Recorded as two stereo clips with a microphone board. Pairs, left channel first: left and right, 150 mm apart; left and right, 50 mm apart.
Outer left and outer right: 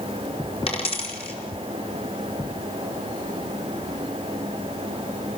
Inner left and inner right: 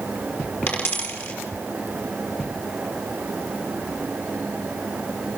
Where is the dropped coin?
40° left (ahead or behind), 5 m.